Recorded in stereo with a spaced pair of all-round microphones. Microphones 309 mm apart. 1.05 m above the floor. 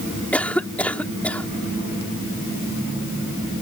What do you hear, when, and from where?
0.3 s a cough: 5° left (ahead or behind)